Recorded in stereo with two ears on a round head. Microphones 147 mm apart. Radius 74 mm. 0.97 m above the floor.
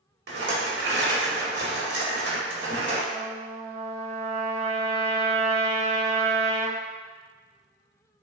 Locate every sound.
0.3 s a rattle: 75° right (ahead or behind), 1.2 m
3.1 s a trumpet: 40° right (ahead or behind), 0.6 m